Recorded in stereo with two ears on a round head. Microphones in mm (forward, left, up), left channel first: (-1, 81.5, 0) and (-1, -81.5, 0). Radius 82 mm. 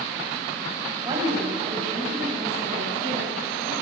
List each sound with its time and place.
1.1 s a woman speaking: 20° right (ahead or behind), 4 m; by 3.7 s 45° right (ahead or behind), 7 m